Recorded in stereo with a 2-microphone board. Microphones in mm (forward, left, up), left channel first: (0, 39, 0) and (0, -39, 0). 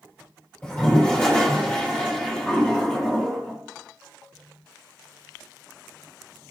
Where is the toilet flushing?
15° left (ahead or behind), 1.0 m.